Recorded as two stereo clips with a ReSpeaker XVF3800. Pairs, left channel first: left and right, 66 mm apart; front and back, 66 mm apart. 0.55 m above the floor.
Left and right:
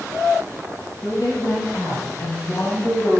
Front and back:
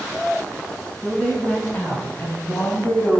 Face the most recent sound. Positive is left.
turn(degrees=40)